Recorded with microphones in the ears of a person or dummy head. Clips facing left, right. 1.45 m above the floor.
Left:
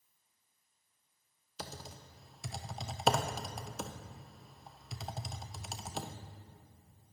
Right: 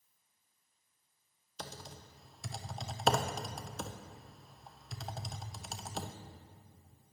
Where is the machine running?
I don't hear a machine running.